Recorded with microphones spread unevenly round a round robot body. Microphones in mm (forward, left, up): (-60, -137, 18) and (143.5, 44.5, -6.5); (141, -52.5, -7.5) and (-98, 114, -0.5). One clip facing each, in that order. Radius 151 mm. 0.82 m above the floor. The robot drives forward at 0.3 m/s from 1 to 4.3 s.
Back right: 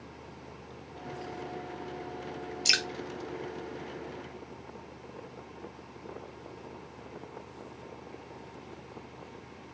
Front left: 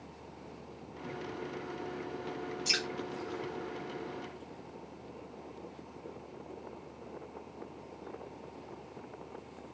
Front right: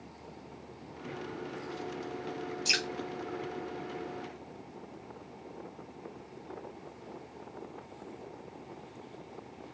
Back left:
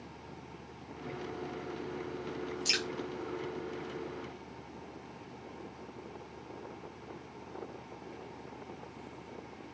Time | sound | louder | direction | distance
2.6 | dripping | even, even | 135° right | 1.0 m